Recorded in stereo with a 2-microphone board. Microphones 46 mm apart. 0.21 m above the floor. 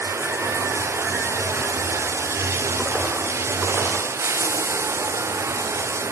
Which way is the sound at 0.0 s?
85° right.